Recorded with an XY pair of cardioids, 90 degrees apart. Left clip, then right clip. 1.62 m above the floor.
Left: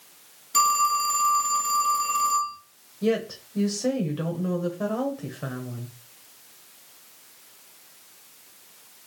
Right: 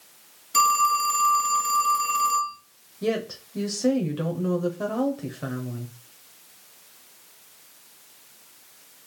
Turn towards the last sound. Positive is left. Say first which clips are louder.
# left 2 dB
turn(degrees=-15)